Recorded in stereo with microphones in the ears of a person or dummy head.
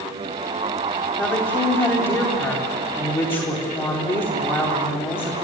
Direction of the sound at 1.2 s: 10° left (ahead or behind).